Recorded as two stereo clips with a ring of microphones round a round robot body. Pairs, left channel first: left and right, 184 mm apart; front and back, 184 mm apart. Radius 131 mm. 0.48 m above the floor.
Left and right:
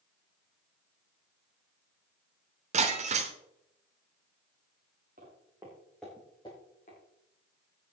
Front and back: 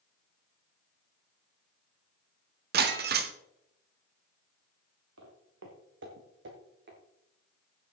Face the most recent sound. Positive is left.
turn(degrees=155)